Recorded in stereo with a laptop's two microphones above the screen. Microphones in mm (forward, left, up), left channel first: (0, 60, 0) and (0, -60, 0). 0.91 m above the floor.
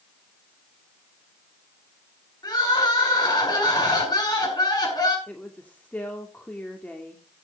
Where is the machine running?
I don't hear a machine running.